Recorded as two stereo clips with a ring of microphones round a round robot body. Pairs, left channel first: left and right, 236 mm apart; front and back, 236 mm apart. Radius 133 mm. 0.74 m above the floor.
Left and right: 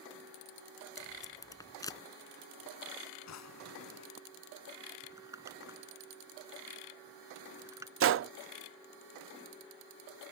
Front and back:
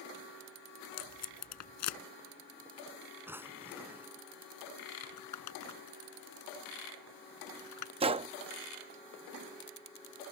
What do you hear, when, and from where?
1.0 s tape being pulled: 15° left
3.3 s a drawer: 100° left
5.0 s crumpling: 10° right
8.0 s a gunshot: 115° right